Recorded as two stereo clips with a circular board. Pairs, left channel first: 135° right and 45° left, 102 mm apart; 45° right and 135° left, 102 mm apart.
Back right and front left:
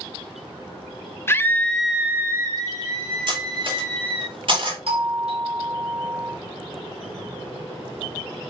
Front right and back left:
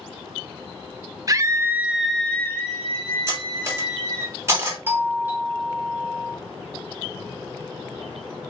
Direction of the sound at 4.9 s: 65° left.